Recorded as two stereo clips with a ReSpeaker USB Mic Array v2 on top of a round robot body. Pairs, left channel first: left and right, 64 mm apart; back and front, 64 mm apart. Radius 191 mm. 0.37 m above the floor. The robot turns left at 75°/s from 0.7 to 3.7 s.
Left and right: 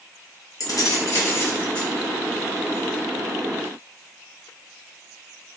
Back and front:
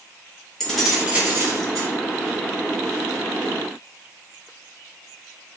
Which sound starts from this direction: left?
Keys jangling, at 0.6 s.